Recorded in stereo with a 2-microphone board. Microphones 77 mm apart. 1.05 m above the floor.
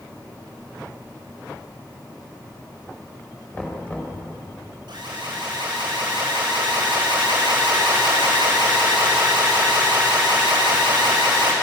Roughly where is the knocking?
Centre.